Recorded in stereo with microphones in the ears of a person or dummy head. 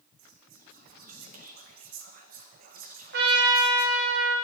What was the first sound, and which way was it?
Whispering, 55° right (ahead or behind).